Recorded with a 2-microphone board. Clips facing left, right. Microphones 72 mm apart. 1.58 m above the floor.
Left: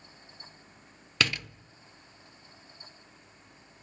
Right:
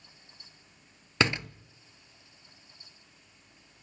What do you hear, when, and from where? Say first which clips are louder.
1.2 s a door slam: right 3 dB; 25° right (ahead or behind), 0.6 m